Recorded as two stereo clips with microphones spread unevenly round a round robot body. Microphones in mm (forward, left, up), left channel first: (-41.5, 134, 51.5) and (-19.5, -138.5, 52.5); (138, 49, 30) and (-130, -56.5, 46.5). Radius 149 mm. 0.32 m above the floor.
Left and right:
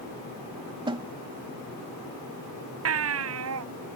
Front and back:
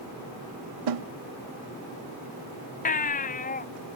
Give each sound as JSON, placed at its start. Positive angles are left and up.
{"t": 0.9, "sound": "a snare drum", "azimuth_deg": -160}
{"t": 2.9, "sound": "a baby crying", "azimuth_deg": -45}